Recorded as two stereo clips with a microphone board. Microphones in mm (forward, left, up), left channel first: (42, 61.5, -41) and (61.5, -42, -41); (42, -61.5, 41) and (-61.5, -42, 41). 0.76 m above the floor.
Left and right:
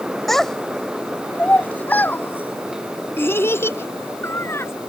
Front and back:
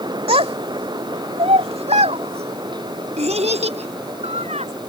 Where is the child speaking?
170° right; by 4.7 s 165° left.